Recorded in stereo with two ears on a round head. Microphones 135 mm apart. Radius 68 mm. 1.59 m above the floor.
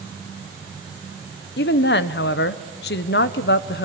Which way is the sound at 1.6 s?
80° left.